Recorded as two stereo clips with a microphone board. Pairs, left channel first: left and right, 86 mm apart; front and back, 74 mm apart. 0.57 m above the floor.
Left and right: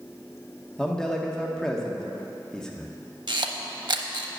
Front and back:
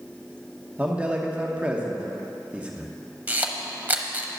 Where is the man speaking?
155° left, 0.9 m.